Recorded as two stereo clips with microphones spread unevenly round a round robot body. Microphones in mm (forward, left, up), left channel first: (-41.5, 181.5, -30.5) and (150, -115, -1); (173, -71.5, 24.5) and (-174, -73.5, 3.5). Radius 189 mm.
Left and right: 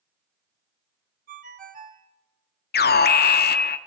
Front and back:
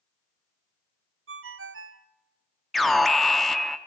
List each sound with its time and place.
1.3 s a ringtone: 130° right, 1.0 m
2.7 s an alarm: 95° left, 0.8 m